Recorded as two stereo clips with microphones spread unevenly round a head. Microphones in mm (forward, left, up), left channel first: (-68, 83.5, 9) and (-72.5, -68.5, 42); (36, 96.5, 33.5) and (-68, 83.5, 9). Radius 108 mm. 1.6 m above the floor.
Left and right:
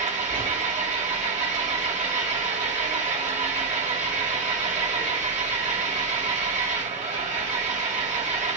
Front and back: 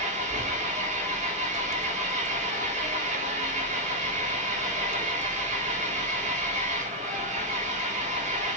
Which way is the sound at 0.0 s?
120° right.